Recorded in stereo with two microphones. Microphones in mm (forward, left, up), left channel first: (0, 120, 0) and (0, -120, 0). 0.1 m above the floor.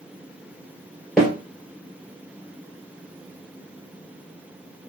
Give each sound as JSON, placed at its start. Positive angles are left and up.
{"t": 1.2, "sound": "a snare drum", "side_deg": 0, "distance_m": 1.5}